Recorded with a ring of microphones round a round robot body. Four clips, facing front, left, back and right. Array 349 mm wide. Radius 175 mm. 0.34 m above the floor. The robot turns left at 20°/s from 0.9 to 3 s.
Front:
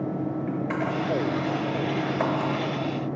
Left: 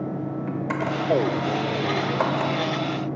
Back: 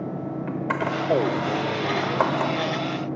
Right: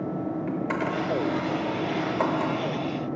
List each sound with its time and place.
0.5 s a camera shutter: 170° right, 0.8 m; by 2.5 s 160° left, 0.8 m